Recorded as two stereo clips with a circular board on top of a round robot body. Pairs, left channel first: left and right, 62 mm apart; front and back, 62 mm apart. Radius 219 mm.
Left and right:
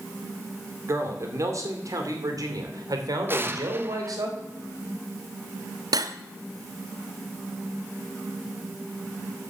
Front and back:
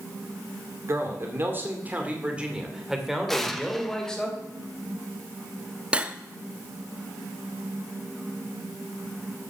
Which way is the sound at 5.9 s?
105° right.